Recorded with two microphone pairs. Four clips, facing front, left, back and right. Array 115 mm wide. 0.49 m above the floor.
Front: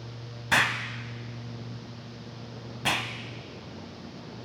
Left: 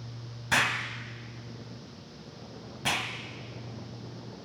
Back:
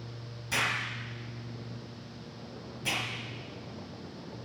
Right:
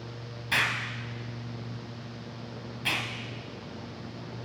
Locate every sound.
0.5 s an explosion: 15° left, 0.9 m